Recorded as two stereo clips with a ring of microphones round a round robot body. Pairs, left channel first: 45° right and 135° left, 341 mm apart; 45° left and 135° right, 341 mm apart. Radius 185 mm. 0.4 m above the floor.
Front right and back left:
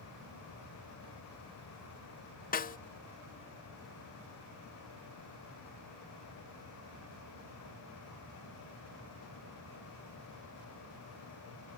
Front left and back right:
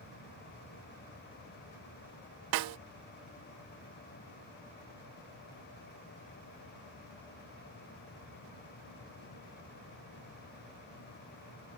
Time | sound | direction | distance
2.5 | a snare drum | 110° right | ?